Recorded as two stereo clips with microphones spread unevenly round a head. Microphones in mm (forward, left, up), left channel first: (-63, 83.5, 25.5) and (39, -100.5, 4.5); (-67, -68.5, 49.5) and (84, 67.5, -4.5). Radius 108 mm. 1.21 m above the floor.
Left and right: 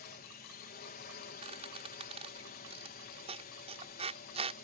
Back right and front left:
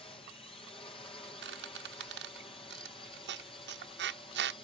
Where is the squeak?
5° left.